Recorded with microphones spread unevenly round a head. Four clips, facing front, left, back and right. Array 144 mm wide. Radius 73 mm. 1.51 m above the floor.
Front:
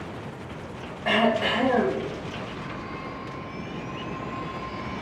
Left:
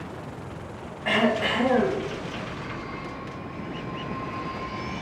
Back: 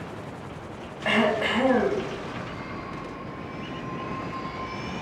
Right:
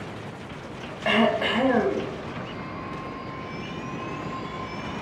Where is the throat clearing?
135° right, 1.0 m.